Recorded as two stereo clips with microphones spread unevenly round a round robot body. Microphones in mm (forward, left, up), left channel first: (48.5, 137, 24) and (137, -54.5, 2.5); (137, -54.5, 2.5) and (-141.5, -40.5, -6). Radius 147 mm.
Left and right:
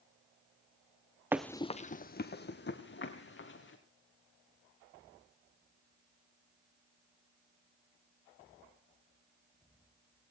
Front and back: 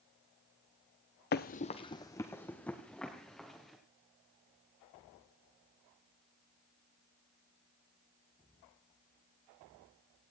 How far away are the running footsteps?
About 0.6 m.